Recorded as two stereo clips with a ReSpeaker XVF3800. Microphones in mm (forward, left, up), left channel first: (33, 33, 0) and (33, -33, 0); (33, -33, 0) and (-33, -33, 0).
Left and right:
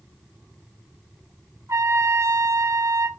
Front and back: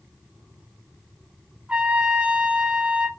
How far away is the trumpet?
About 1.3 m.